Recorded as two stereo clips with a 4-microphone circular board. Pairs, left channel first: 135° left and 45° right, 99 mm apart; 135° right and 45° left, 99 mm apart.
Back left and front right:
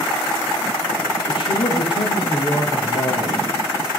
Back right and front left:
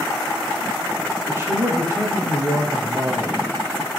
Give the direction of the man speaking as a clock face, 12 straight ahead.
8 o'clock.